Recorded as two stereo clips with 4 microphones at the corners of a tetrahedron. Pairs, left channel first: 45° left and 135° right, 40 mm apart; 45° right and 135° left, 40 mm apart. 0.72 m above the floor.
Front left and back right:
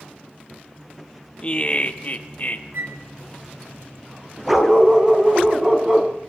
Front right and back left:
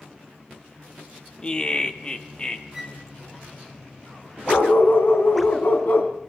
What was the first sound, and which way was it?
Laughter, straight ahead.